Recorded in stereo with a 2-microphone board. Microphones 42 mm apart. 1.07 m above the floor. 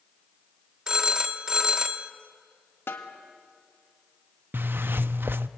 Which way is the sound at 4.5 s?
55° right (ahead or behind).